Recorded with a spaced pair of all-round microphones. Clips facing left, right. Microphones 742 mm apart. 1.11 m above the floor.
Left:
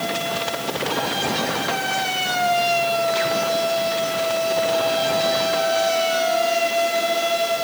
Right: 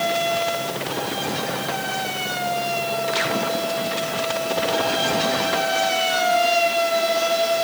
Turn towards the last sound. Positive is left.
No sound to turn to.